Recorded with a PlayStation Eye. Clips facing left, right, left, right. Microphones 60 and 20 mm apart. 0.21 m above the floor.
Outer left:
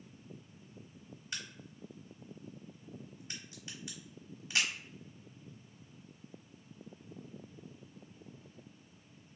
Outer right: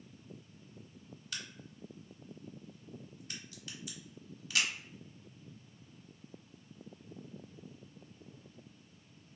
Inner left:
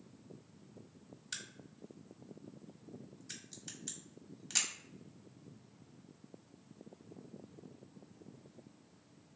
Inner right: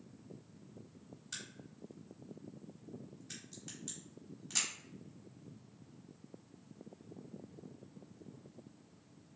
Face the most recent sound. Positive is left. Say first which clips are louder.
# outer left 1 dB, inner left 1 dB
turn(degrees=25)  # may be behind; listen again after turning